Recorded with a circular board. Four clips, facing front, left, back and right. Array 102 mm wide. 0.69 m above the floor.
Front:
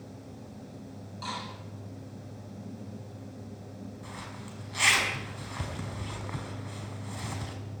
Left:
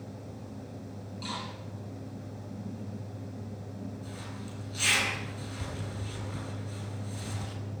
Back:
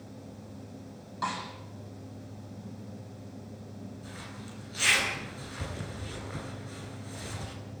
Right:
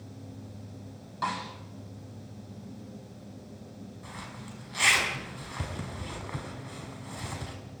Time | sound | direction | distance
1.2 | a snare drum | 120° right | 8.5 m
4.0 | a zipper | 45° right | 6 m